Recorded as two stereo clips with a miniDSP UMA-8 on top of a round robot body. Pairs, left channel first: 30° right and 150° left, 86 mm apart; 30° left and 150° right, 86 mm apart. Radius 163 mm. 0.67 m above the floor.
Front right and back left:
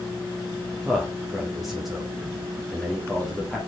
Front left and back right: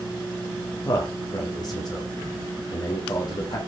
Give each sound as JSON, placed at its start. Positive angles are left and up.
{"t": 0.8, "sound": "a man speaking", "azimuth_deg": 60, "distance_m": 2.5}